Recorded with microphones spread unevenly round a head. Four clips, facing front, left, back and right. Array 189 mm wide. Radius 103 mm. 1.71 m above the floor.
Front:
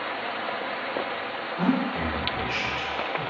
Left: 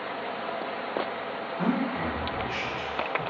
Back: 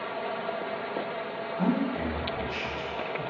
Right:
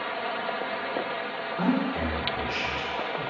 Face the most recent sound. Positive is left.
turn(degrees=-40)